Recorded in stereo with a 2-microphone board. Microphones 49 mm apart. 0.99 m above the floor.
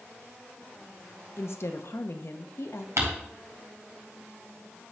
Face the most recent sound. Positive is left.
turn(degrees=-75)  # may be behind; listen again after turning